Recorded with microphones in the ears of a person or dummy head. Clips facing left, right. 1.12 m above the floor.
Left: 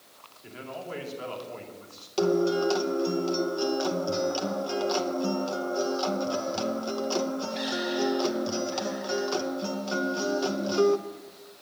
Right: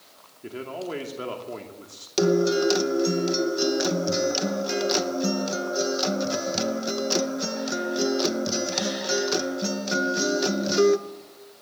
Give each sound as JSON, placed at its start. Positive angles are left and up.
{"t": 0.4, "sound": "a man speaking", "side_deg": -55, "distance_m": 2.5}
{"t": 2.2, "sound": "a guitar", "side_deg": -20, "distance_m": 0.7}